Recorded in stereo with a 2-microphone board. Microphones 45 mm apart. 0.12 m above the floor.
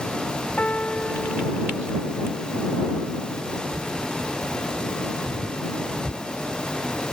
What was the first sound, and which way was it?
A piano, 30° left (ahead or behind).